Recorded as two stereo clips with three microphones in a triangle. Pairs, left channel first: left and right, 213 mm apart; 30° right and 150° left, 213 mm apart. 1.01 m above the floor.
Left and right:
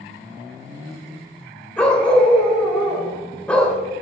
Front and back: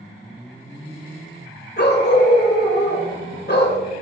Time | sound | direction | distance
1.8 | a dog barking | 5° left | 1.7 m